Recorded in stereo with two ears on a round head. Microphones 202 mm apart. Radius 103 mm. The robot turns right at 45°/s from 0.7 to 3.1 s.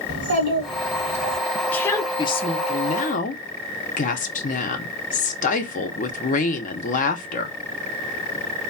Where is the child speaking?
50° right, 1.2 m; by 1.4 s 20° right, 1.2 m.